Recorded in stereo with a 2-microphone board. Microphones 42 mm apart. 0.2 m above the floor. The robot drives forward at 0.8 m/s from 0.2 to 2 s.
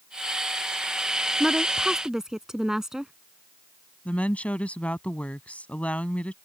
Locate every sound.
1.4 s a woman speaking: 10° right (ahead or behind)
4.0 s a woman speaking: 35° left (ahead or behind)